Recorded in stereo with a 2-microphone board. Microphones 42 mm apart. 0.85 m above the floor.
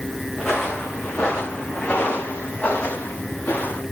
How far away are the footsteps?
About 4 m.